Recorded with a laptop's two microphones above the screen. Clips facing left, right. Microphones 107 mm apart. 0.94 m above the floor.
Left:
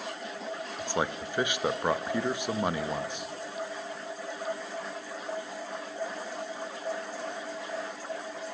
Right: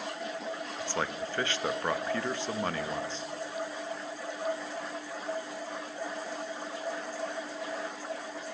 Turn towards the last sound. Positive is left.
turn(degrees=15)  # may be behind; listen again after turning